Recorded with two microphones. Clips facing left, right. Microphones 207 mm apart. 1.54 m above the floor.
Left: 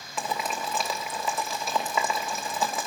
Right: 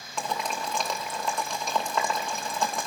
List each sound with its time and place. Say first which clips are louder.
0.2 s boiling: even; 5° left (ahead or behind), 2.5 m